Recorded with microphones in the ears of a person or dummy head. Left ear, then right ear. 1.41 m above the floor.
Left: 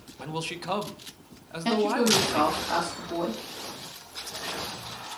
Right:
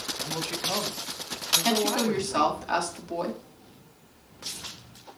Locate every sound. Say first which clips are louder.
0.2 s a man speaking: even; 25° left (ahead or behind), 1.1 m
1.6 s a woman speaking: left 1 dB; 20° right (ahead or behind), 2 m